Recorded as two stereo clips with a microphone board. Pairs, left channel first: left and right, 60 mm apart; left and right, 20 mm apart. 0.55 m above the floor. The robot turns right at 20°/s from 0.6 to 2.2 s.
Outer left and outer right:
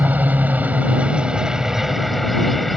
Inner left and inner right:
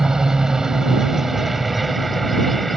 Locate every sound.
0.0 s a helicopter: 30° right; by 2.8 s straight ahead